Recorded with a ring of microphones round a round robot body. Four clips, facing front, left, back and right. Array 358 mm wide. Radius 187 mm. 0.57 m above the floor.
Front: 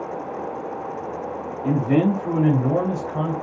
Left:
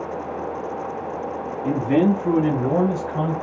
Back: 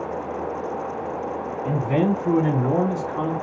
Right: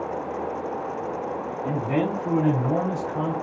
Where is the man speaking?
40° left, 4.5 m; by 3.3 s 30° left, 4 m.